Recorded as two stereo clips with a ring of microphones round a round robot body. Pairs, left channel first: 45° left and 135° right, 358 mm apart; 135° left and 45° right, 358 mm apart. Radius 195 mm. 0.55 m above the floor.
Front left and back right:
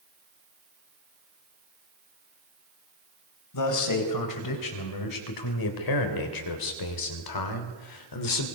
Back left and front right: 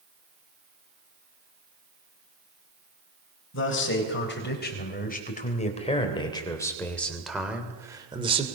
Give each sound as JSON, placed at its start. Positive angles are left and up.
{"t": 3.5, "sound": "a man speaking", "azimuth_deg": 80, "distance_m": 4.5}